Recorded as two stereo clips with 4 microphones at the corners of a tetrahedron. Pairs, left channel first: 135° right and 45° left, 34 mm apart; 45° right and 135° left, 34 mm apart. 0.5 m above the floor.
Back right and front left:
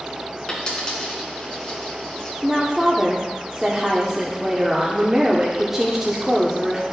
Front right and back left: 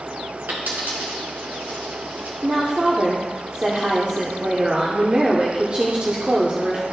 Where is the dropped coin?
155° left, 2.5 m.